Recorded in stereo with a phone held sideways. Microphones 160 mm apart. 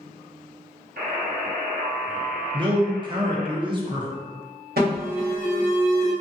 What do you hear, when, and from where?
1.0 s a buzzer: 65° right (ahead or behind), 0.6 m
2.5 s a man speaking: 30° right (ahead or behind), 0.6 m
4.8 s an alarm: 75° right (ahead or behind), 1.0 m